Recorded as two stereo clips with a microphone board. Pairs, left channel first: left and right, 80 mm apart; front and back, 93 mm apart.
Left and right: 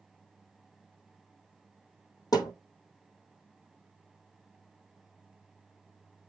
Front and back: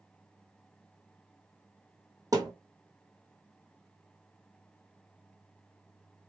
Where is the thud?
125° left, 1.9 m.